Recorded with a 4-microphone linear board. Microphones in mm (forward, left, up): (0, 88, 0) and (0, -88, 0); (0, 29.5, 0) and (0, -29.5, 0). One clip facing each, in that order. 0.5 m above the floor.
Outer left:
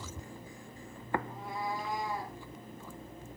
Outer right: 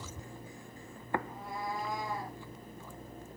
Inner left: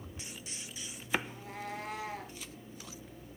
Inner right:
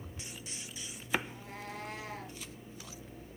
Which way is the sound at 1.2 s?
Centre (ahead or behind).